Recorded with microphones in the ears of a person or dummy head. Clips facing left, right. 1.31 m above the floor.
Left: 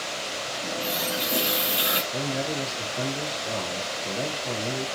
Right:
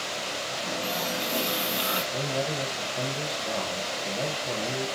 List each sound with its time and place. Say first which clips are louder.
0.6 s a running tap: left 1 dB; 20° left (ahead or behind), 0.9 m
2.1 s a man speaking: even; centre (ahead or behind), 1.2 m